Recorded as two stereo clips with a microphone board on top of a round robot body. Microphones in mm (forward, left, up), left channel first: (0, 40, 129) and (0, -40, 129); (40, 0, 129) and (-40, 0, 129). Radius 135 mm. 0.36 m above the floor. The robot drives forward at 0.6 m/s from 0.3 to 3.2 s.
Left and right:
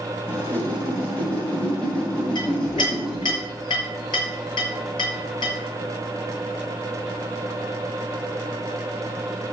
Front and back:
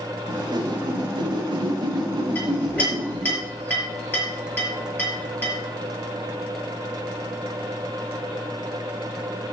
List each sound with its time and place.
0.3 s a whoosh: 155° left, 1.9 m; by 3.4 s 170° left, 3.5 m
2.4 s a clink: 65° left, 6.5 m; by 5.5 s 70° left, 6.5 m